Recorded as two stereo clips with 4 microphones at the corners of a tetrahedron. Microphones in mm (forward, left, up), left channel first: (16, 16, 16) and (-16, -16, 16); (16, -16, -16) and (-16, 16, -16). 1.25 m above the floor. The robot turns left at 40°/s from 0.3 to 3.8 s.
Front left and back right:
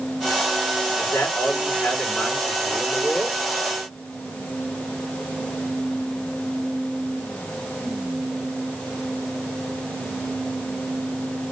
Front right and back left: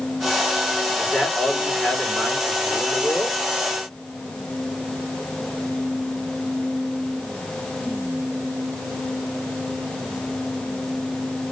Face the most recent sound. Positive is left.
turn(degrees=-65)